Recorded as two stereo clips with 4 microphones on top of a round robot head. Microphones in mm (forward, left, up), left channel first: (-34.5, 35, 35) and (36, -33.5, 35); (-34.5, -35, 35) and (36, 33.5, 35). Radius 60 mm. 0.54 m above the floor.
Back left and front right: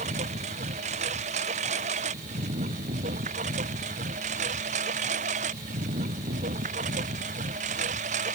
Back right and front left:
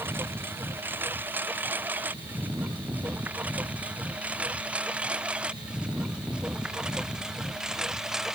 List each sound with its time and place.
0.0 s a lawn mower: 25° right; by 8.4 s 40° right